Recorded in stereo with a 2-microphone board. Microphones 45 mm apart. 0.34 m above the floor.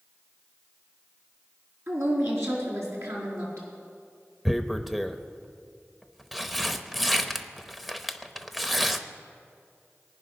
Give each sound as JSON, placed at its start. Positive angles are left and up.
{"t": 1.9, "sound": "a woman speaking", "side_deg": -70, "distance_m": 3.5}
{"t": 4.5, "sound": "tearing paper", "side_deg": 0, "distance_m": 0.8}